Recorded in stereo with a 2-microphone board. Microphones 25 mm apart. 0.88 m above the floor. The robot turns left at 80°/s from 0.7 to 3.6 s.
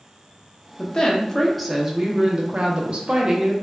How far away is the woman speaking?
About 0.6 m.